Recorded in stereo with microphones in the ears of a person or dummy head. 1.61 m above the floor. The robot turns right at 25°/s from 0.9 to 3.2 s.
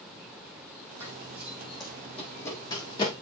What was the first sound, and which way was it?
Running footsteps, 10° right (ahead or behind).